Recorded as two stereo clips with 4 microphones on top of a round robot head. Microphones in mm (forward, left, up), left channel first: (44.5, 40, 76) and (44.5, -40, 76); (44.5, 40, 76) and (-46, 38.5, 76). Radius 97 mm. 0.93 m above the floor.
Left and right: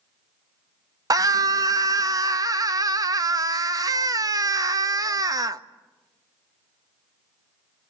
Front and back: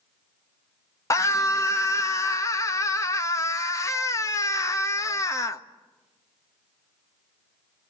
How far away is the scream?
About 1.3 m.